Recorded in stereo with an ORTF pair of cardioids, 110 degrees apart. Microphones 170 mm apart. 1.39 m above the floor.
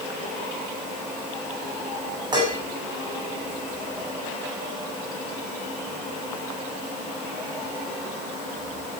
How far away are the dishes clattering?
About 6.5 m.